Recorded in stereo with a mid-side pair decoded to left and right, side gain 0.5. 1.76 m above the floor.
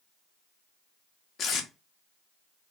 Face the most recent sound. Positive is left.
turn(degrees=50)